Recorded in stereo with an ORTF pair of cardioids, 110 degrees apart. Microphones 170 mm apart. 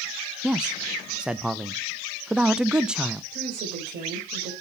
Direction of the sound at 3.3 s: 60° right.